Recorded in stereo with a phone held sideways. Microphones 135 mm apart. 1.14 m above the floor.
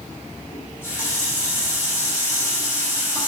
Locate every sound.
0.5 s a running tap: 20° left (ahead or behind), 4 m